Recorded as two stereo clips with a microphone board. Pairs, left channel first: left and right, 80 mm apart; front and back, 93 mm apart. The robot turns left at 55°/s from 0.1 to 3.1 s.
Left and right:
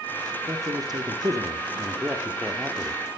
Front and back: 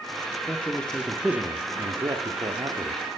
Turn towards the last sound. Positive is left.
turn(degrees=155)